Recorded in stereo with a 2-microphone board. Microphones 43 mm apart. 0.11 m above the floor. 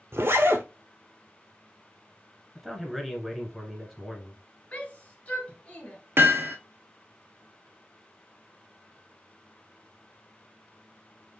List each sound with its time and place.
0.1 s a zipper: 60° right (ahead or behind), 0.9 m
2.5 s a man speaking: centre (ahead or behind), 1.6 m
4.7 s a shout: 30° left (ahead or behind), 1.7 m
6.2 s hammering: 55° right (ahead or behind), 1.0 m